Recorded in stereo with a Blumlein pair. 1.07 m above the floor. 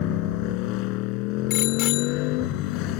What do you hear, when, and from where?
0.0 s a motorcycle: 40° left
1.5 s a bicycle bell: 40° left